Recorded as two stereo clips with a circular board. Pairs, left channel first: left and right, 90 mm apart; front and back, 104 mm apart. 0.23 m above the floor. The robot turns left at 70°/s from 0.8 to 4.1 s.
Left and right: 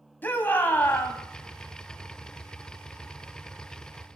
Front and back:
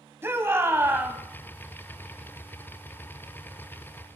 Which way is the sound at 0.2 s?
135° left.